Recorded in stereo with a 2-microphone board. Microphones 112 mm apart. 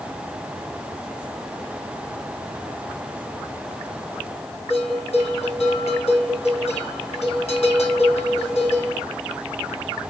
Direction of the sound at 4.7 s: 65° left (ahead or behind).